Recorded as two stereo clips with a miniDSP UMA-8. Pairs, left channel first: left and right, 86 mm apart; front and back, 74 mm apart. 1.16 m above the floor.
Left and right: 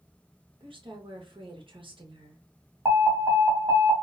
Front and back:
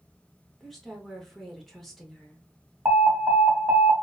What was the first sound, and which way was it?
A woman speaking, 85° right.